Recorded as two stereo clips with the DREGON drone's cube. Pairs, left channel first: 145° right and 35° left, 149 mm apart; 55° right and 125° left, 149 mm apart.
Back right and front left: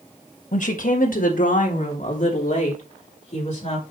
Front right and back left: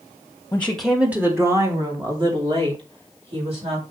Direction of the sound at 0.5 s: 130° right.